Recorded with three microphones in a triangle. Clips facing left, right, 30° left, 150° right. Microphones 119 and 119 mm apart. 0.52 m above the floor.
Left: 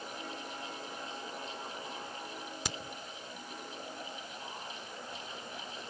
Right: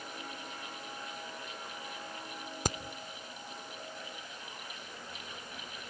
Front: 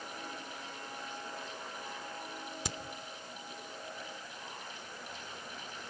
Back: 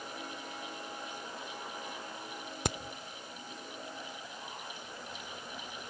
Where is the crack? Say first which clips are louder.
Right 8 dB, back 9 dB; 130° right, 0.7 m.